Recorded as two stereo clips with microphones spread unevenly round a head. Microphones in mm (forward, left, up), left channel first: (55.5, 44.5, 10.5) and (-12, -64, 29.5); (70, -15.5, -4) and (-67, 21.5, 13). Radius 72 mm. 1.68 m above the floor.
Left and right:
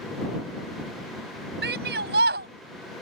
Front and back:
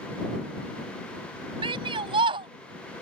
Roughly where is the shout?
Behind right.